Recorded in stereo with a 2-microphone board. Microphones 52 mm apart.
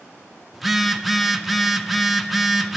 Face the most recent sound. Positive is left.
turn(degrees=0)  # may be behind; listen again after turning